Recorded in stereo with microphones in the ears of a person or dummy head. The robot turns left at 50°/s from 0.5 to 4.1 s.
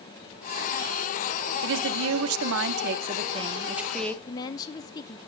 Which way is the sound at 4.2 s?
20° left (ahead or behind).